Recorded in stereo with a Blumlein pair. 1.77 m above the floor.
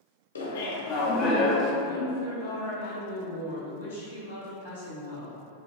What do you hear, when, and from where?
0.3 s laughter: 70° left, 0.7 m; by 1.7 s 15° left, 1.0 m
1.8 s a woman speaking: 70° left, 1.8 m